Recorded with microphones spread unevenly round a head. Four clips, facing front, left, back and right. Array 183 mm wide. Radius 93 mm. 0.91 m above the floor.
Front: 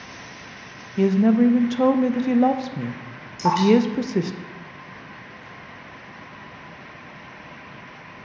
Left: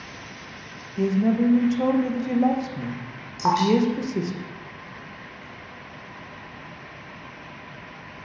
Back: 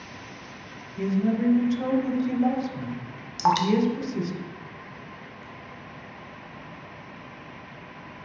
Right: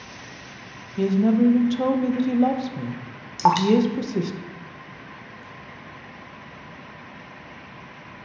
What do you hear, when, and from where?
1.0 s a woman speaking: 10° right, 0.5 m
3.4 s dripping: 120° right, 0.6 m